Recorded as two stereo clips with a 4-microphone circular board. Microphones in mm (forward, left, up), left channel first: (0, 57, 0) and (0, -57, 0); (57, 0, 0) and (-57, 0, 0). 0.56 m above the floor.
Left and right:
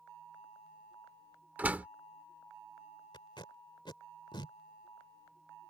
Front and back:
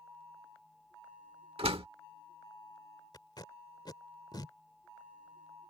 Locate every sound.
1.6 s a door slam: 165° right
3.1 s tape being pulled: 50° left